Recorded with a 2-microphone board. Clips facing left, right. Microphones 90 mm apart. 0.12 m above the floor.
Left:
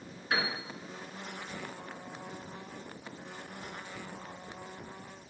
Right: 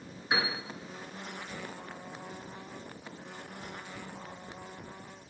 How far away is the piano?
About 1.5 m.